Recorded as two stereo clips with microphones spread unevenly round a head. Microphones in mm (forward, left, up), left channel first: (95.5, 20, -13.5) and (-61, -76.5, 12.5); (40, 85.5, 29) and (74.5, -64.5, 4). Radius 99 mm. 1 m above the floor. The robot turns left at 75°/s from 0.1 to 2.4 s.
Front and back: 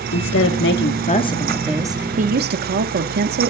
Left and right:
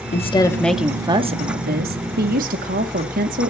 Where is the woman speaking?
55° left, 2 m; by 3.5 s 115° right, 2 m.